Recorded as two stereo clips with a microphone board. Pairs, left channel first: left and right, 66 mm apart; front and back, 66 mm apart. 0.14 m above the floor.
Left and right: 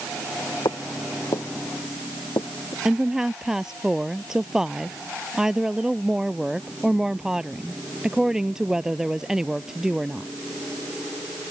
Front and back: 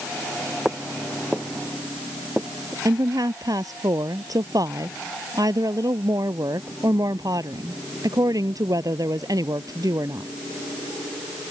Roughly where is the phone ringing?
I don't hear a phone ringing.